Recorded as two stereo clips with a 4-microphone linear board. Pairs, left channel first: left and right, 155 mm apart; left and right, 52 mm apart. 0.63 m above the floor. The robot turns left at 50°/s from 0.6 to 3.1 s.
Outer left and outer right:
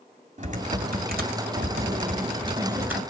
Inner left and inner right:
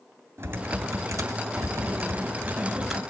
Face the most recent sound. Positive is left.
turn(degrees=180)